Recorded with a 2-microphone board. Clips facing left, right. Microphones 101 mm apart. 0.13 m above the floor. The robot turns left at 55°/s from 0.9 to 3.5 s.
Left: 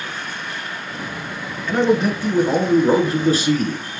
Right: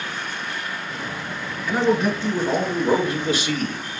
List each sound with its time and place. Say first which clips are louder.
1.7 s a man speaking: left 3 dB; 165° right, 2.0 m; by 3.8 s 95° left, 2.0 m